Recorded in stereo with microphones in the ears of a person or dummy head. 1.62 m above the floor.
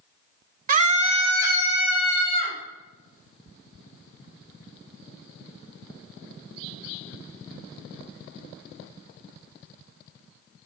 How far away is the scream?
About 0.6 m.